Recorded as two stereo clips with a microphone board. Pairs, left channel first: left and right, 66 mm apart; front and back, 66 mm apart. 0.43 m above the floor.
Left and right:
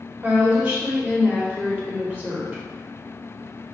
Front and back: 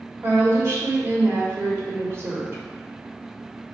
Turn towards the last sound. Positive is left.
turn(degrees=-150)